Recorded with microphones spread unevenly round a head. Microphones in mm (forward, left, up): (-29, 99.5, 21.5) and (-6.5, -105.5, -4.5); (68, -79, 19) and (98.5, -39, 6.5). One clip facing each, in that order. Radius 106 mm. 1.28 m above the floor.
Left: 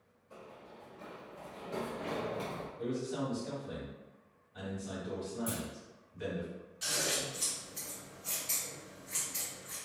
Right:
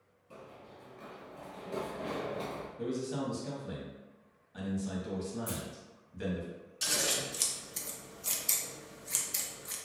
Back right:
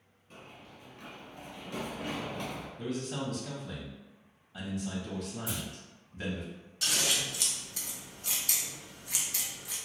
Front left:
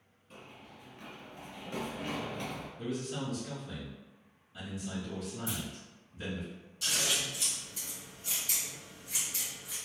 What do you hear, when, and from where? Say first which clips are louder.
0.3 s running footsteps: right 1 dB, back right 1 dB; 55° right, 1.6 m; by 2.7 s 70° left, 1.3 m
2.8 s a man speaking: right 1 dB, back right 1 dB; 95° right, 0.9 m
5.5 s a clunk: left 1 dB, back right 1 dB; 155° left, 1.4 m
6.8 s scissors: right 1 dB, back right 2 dB; 120° right, 0.5 m